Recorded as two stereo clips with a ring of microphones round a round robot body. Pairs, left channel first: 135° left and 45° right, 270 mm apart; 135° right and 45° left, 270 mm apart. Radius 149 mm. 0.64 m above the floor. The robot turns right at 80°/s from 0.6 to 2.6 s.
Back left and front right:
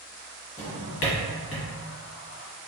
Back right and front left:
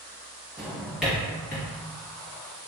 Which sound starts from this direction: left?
A drawer, at 0.6 s.